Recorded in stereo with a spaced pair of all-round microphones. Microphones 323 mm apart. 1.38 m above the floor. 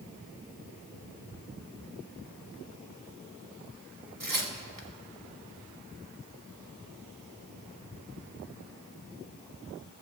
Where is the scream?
I don't hear a scream.